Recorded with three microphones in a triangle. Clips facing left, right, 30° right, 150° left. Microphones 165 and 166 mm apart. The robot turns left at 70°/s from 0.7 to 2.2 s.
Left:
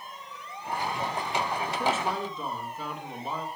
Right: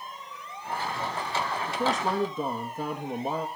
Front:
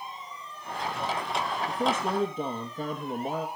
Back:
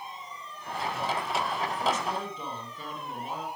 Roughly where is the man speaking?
Ahead right.